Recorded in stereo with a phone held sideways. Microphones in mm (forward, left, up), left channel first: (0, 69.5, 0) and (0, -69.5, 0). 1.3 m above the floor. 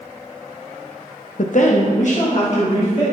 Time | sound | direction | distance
1.4 | a woman speaking | 60° left (ahead or behind) | 0.5 m